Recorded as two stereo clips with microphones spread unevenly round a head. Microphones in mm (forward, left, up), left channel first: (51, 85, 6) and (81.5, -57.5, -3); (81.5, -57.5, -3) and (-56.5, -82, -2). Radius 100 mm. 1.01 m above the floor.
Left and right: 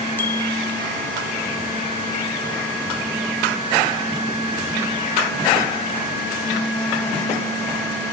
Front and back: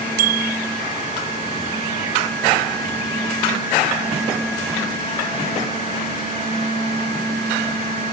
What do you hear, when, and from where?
0.2 s a bicycle bell: straight behind